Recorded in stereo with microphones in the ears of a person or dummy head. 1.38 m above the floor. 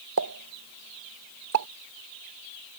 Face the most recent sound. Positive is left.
turn(degrees=-65)  # may be behind; listen again after turning